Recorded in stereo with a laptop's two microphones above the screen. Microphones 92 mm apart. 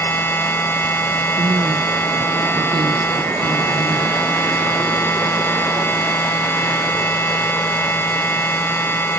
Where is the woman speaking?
55° right (ahead or behind).